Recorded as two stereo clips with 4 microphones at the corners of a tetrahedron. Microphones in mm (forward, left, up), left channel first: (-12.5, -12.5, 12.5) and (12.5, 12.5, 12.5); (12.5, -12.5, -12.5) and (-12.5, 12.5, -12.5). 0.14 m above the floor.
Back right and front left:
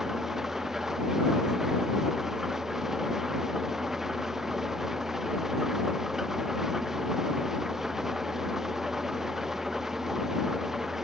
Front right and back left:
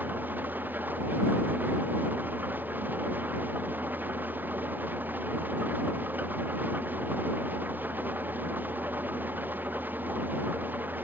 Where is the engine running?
125° left.